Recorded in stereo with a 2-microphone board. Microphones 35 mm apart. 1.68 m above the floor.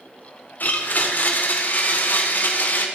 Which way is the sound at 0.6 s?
60° left (ahead or behind).